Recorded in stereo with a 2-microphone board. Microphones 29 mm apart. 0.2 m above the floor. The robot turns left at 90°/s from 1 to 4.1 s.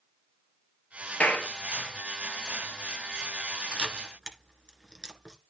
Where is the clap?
70° left (ahead or behind), 4.5 m; by 1.5 s 65° left (ahead or behind), 4.5 m.